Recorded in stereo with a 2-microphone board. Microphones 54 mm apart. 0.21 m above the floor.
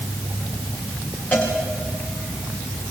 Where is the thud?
I don't hear a thud.